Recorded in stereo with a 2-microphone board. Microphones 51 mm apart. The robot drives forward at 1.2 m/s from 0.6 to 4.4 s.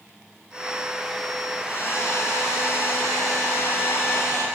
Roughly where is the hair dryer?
Left.